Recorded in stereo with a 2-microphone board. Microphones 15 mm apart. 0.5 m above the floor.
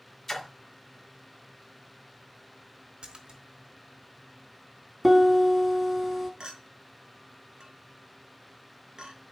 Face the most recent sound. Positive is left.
turn(degrees=-65)  # may be behind; listen again after turning